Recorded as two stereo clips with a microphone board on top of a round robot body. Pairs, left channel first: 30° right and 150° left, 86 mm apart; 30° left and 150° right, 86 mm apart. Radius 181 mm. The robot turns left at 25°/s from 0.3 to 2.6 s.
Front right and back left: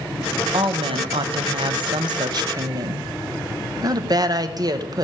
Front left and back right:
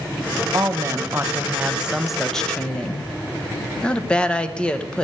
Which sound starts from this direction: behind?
A woman speaking, at 0.5 s.